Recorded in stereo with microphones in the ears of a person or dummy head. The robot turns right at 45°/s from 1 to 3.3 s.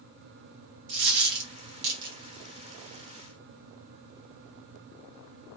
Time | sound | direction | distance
0.9 | a dropped coin | 50° right (ahead or behind) | 0.9 m